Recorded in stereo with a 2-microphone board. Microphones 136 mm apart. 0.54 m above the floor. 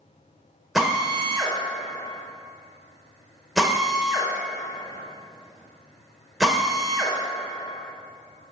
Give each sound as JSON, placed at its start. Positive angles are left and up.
{"t": 0.8, "sound": "a drill", "side_deg": 0, "distance_m": 1.6}